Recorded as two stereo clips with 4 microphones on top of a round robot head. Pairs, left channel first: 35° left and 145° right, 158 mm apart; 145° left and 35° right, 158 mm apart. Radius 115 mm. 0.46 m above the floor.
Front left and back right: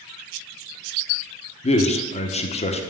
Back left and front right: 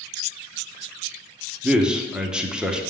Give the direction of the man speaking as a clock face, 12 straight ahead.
10 o'clock.